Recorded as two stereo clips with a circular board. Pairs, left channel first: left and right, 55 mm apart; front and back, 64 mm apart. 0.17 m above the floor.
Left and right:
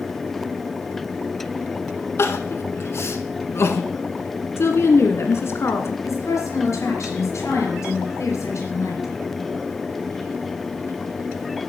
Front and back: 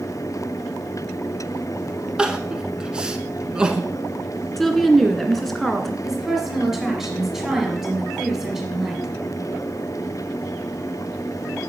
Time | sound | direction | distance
2.2 | crying | 105° left | 0.9 m
4.6 | a woman speaking | 85° left | 1.6 m
6.0 | a woman speaking | 95° left | 3.5 m